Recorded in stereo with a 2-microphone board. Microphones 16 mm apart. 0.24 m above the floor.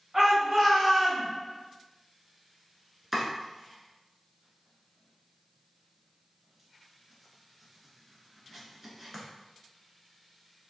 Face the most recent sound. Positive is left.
turn(degrees=-10)  # may be behind; listen again after turning